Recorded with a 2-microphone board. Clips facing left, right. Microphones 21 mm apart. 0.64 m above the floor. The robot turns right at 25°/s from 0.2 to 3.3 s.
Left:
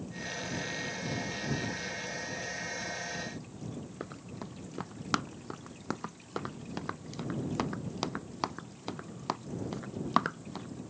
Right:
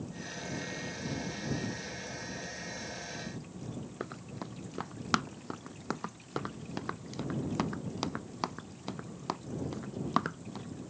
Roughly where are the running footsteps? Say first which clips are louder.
Right 1 dB; centre.